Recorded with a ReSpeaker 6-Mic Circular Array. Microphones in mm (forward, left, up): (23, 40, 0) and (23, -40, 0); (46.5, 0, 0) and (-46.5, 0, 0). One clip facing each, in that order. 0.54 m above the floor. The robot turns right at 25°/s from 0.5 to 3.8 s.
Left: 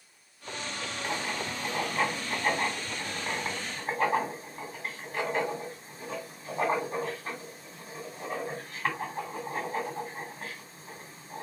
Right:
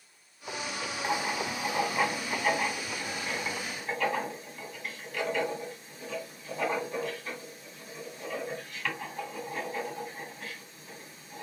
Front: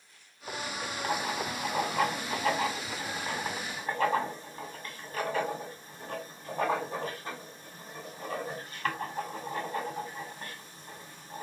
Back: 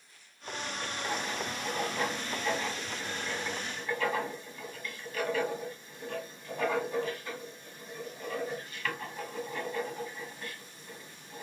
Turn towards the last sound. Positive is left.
turn(degrees=45)